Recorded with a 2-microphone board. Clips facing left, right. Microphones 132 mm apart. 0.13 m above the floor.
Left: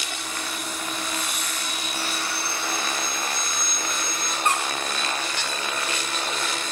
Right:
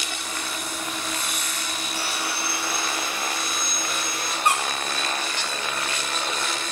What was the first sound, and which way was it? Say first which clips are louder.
Sawing: right 1 dB; 10° right (ahead or behind).